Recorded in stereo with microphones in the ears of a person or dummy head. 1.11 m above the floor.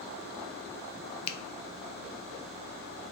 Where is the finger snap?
30° left (ahead or behind), 0.5 m.